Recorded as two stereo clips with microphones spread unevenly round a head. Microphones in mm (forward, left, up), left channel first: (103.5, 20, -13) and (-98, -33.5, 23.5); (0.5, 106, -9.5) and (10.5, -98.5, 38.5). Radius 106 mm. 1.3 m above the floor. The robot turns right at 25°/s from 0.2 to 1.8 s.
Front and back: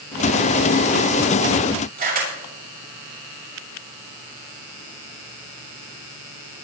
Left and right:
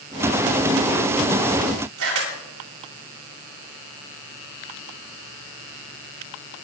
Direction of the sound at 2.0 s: 115° right.